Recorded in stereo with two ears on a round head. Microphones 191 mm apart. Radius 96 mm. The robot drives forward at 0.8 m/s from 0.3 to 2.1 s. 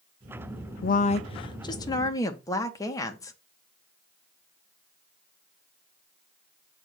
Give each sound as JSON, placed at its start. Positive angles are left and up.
{"t": 0.8, "sound": "a woman speaking", "side_deg": 45, "distance_m": 0.6}